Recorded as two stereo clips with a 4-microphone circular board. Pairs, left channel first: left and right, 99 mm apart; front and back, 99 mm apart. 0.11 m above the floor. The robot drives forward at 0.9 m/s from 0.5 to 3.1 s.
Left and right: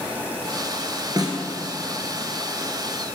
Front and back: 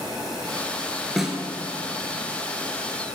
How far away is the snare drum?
About 1.4 m.